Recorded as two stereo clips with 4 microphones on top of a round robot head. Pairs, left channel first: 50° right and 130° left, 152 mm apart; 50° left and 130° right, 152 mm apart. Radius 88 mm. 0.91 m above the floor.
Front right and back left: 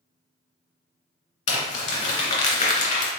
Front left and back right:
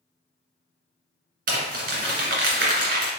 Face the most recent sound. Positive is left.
turn(degrees=-95)